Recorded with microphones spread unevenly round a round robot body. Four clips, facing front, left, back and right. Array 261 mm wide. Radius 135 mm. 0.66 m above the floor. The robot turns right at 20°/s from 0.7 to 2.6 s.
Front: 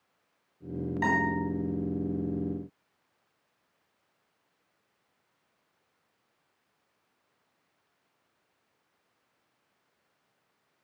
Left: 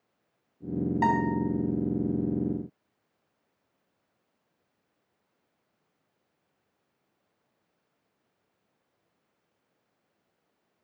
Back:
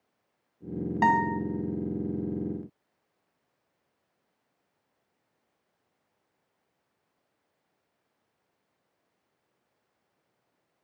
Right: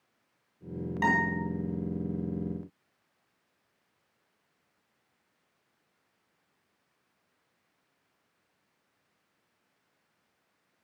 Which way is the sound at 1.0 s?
175° right.